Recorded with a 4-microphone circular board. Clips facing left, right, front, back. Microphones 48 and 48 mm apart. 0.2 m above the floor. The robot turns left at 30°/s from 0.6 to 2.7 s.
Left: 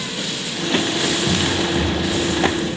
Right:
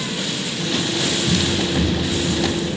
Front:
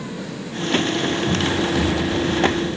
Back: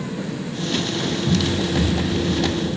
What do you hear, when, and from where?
1.3 s running footsteps: 95° left, 2.5 m; by 2.7 s 35° left, 3.5 m